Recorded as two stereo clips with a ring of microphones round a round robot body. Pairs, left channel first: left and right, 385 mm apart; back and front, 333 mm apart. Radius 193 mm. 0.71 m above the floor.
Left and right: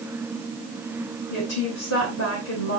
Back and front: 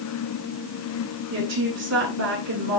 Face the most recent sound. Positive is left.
turn(degrees=40)